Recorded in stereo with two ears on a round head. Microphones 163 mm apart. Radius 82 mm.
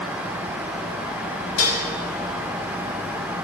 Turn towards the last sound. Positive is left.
turn(degrees=70)  # may be behind; listen again after turning